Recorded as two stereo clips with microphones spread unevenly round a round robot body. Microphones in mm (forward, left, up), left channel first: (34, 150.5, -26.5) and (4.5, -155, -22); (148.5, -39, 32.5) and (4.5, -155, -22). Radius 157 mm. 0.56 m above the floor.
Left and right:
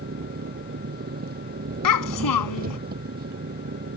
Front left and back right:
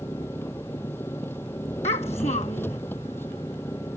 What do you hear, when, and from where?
0.0 s an engine running: 35° right
1.8 s a child speaking: 110° left